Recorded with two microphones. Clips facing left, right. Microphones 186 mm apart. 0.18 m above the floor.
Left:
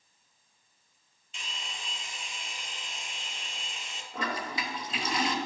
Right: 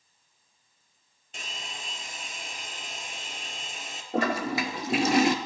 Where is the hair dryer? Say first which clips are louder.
Right 3 dB; 55° right (ahead or behind), 0.7 m.